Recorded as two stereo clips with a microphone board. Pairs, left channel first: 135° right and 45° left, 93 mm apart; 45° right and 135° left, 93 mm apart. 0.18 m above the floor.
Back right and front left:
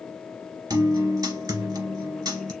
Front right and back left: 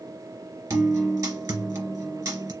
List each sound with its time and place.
0.7 s a guitar: 90° left, 2 m